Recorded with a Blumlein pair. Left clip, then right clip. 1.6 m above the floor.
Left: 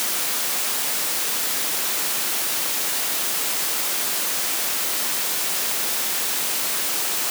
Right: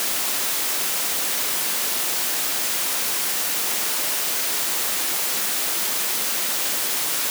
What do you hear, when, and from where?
Only background noise.